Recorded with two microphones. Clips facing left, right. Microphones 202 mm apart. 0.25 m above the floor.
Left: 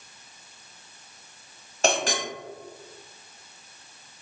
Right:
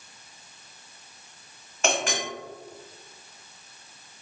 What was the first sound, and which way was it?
A clink, 35° left (ahead or behind).